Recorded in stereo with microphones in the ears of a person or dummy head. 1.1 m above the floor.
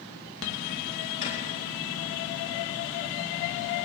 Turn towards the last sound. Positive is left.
turn(degrees=40)  # may be behind; listen again after turning